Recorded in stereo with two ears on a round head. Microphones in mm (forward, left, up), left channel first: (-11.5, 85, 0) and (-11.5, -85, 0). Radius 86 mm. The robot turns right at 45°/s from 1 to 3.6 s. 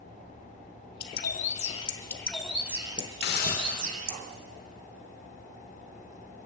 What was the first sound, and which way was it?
A bird, 115° left.